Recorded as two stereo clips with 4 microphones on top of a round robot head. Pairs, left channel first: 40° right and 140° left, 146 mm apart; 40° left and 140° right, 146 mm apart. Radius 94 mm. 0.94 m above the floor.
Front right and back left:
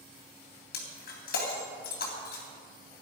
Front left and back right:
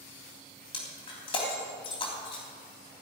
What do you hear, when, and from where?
0.7 s breaking glass: 15° right, 3 m